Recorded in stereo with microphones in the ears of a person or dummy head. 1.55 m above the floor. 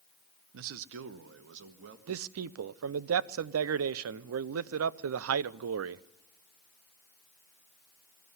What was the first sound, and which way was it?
A man speaking, 65° right (ahead or behind).